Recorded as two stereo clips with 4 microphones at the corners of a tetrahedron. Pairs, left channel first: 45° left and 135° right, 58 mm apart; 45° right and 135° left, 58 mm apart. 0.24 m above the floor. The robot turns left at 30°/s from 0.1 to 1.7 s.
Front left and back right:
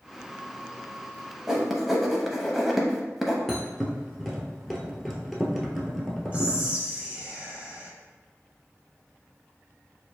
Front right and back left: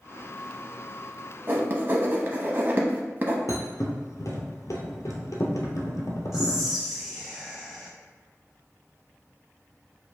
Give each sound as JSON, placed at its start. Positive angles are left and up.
{"t": 1.5, "sound": "writing", "azimuth_deg": 145, "distance_m": 0.7}
{"t": 3.5, "sound": "a thud", "azimuth_deg": -45, "distance_m": 0.9}
{"t": 6.3, "sound": "whispering", "azimuth_deg": -150, "distance_m": 1.2}